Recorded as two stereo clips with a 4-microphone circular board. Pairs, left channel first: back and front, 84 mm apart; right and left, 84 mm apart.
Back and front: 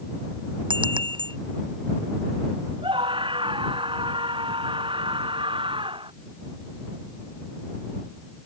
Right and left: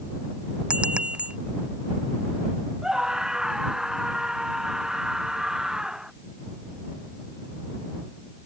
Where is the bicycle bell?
10° left.